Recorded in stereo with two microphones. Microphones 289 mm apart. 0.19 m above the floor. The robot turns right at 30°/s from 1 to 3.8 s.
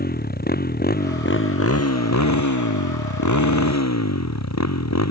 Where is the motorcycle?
30° left; by 5.1 s 115° left.